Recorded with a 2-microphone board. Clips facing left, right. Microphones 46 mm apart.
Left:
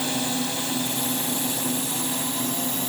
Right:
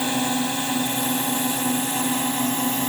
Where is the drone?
25° right (ahead or behind); by 2.9 s 45° right (ahead or behind).